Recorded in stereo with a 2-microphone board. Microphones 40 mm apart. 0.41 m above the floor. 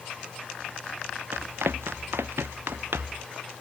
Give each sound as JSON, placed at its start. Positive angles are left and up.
{"t": 1.3, "sound": "running footsteps", "side_deg": -85}